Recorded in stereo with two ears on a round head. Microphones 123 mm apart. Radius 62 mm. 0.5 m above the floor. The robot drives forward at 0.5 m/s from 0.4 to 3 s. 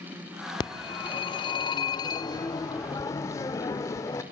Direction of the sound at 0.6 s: 30° left (ahead or behind).